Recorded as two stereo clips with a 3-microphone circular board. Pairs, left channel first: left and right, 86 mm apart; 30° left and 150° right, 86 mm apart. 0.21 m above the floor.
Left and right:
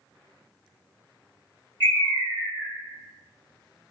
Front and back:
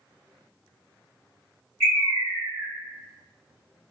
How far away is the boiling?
I don't hear boiling.